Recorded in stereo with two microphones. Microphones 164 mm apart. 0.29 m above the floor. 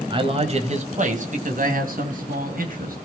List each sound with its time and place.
0.1 s a man speaking: 30° right (ahead or behind), 1.6 m; by 3.0 s 60° right (ahead or behind), 3.5 m